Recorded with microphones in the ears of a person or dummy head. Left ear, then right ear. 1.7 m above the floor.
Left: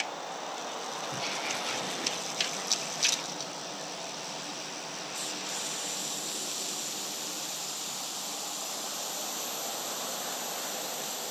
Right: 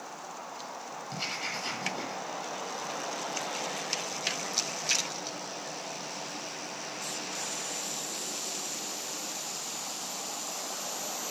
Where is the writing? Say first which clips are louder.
Right 1 dB; 40° right (ahead or behind), 9.5 m.